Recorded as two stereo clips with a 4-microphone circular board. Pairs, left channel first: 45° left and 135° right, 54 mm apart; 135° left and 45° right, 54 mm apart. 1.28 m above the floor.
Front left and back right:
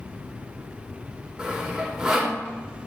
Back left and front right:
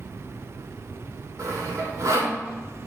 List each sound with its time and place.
1.4 s sawing: 55° right, 3 m